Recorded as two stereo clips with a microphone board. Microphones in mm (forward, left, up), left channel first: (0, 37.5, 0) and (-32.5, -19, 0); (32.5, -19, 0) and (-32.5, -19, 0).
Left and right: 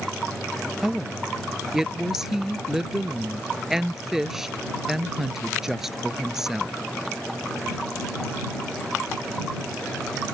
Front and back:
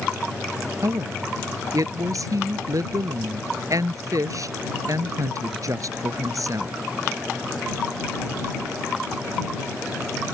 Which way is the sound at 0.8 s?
155° left.